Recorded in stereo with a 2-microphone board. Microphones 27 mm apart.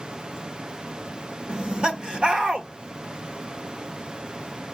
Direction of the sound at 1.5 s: 35° right (ahead or behind).